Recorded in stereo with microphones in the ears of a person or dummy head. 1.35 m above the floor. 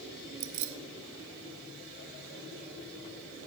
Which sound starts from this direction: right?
Keys jangling, at 0.4 s.